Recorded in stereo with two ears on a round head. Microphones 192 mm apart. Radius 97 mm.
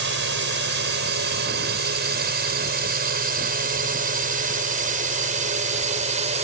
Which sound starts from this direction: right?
A drone, at 0.0 s.